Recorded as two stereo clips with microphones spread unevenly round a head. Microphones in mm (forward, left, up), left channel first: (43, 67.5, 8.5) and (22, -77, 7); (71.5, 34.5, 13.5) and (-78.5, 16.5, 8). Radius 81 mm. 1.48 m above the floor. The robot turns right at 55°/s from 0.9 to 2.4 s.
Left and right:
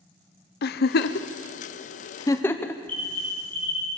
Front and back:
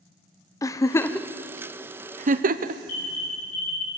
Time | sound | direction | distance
0.6 | a giggle | 75° left | 0.7 m
2.9 | an alarm | 5° left | 9 m